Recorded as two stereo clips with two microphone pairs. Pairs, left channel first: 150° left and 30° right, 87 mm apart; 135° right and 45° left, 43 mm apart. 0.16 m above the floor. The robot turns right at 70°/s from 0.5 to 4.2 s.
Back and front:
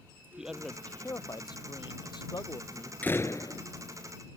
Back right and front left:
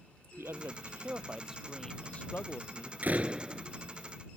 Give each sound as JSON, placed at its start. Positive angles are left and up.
{"t": 0.4, "sound": "a man speaking", "azimuth_deg": 50}
{"t": 3.0, "sound": "a door slam", "azimuth_deg": 85}